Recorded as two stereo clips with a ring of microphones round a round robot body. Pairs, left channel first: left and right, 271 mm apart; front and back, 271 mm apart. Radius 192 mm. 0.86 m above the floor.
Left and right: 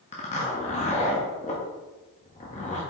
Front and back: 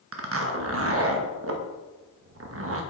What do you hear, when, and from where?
0.1 s a zipper: 155° left, 1.1 m